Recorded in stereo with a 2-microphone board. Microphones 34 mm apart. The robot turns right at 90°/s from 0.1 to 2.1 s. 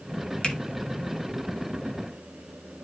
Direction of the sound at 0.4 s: 30° left (ahead or behind).